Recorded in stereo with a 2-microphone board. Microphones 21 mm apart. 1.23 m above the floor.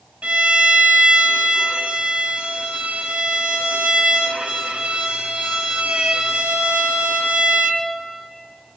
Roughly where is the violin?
Right.